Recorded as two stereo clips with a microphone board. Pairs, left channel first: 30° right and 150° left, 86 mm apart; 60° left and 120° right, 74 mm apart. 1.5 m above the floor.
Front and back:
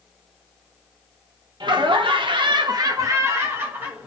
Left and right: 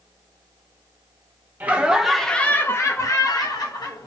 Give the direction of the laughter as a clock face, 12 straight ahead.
6 o'clock.